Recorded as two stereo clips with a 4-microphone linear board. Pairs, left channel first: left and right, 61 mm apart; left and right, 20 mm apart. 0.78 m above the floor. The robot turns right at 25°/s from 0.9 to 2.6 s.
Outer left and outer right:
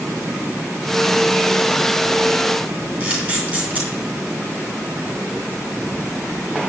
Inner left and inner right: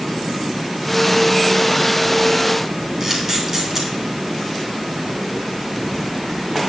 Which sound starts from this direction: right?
A camera shutter, at 3.0 s.